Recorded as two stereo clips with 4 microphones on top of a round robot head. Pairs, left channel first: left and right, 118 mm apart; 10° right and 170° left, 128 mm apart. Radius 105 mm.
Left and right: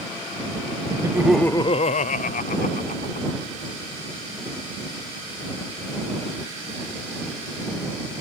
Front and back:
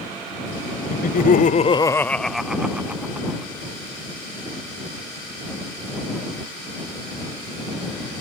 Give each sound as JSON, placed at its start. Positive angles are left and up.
{"t": 0.9, "sound": "laughter", "azimuth_deg": -30}